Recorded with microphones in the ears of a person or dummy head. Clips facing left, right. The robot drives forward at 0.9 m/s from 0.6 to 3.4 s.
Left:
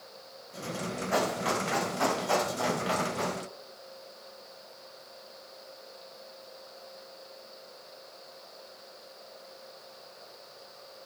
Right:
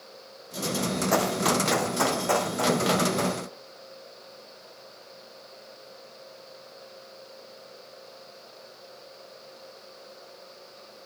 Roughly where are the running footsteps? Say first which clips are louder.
Right 3 dB; right.